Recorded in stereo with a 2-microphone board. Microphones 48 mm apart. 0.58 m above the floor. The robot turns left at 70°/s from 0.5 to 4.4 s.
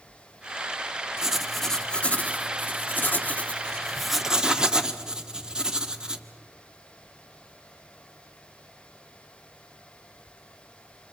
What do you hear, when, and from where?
1.2 s writing: 160° right, 1.1 m; by 6.2 s 25° right, 1.1 m